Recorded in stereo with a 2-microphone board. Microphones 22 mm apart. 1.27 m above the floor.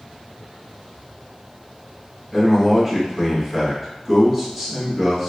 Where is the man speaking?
10° right (ahead or behind), 1.5 m.